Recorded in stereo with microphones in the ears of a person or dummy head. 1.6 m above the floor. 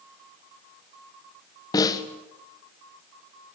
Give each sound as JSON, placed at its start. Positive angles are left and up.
{"t": 1.7, "sound": "a snare drum", "side_deg": 20, "distance_m": 1.5}